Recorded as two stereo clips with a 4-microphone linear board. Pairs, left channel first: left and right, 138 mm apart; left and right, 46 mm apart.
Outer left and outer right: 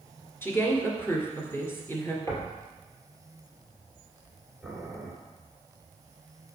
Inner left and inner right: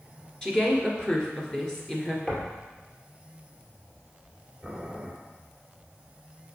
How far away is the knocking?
About 2 m.